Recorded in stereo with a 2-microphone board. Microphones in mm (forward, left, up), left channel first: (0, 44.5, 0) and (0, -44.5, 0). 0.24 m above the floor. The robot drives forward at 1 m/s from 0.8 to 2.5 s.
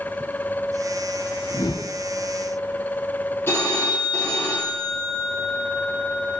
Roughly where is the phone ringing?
Left.